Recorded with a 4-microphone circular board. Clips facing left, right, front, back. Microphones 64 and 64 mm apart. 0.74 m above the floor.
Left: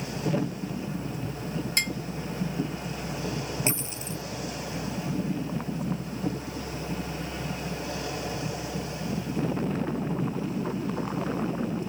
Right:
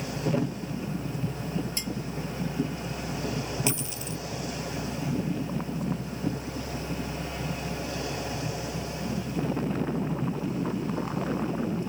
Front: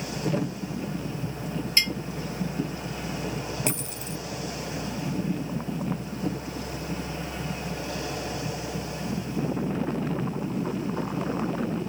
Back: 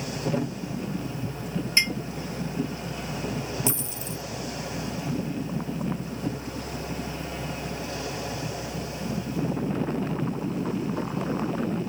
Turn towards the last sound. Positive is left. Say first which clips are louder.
# even, even
turn(degrees=35)